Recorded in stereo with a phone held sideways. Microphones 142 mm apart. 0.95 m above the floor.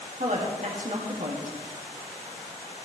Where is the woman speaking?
60° right (ahead or behind), 2.0 m.